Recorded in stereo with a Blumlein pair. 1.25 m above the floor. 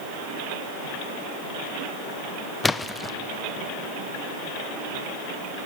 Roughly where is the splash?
Ahead.